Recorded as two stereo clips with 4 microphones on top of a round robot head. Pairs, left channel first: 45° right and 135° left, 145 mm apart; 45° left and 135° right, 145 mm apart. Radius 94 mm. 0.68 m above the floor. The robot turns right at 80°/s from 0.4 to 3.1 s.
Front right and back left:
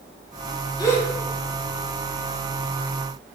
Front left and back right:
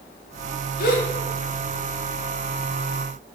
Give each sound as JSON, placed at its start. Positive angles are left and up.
{"t": 0.8, "sound": "a gasp", "azimuth_deg": 20, "distance_m": 0.5}